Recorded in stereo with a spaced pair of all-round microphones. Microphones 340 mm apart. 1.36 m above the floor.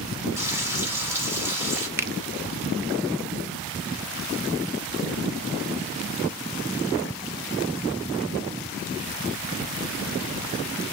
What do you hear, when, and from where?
0.4 s frying: 5° right (ahead or behind), 4.5 m
2.0 s a finger snap: 5° right (ahead or behind), 0.6 m